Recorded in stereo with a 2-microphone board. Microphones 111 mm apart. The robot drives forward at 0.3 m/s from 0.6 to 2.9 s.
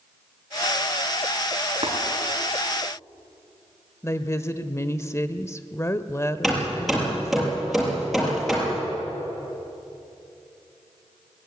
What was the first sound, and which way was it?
Tapping, 60° right (ahead or behind).